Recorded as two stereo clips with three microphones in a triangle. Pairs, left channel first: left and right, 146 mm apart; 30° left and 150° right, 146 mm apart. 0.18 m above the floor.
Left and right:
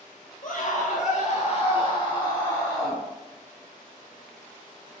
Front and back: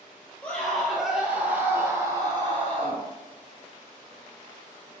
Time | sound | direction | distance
0.4 | a scream | 105° left | 3.5 m